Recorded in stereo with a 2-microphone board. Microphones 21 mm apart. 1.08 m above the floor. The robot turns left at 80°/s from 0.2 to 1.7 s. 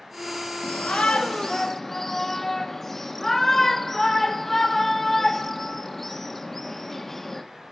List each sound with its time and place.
0.6 s a shout: 95° left, 1.1 m; by 7.4 s 10° left, 1.1 m